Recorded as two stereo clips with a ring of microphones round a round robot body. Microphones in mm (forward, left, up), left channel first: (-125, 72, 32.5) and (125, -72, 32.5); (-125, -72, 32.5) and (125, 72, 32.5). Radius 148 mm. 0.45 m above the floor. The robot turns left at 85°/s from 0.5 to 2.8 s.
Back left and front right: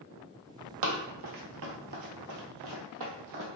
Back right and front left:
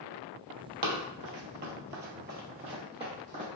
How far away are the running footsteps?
About 0.8 m.